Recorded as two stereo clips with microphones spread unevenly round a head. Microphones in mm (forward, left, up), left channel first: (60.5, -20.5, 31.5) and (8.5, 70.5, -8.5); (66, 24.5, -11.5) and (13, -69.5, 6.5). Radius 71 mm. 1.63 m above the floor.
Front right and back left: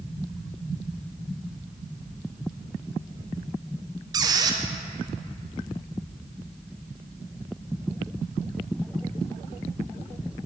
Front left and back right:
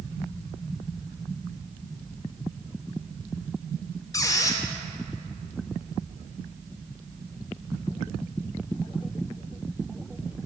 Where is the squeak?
70° left, 0.6 m.